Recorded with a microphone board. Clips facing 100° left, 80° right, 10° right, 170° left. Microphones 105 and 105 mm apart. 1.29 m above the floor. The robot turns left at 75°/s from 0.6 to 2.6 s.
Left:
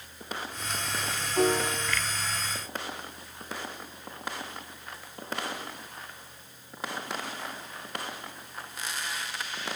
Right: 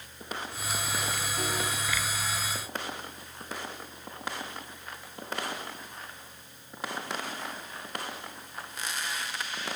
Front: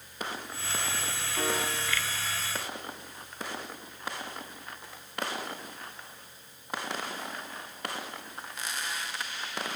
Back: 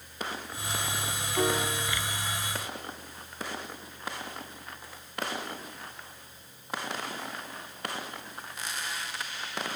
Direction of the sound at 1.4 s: 105° left.